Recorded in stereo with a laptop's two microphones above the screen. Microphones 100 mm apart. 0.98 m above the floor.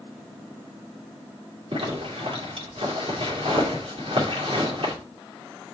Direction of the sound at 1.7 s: 60° right (ahead or behind).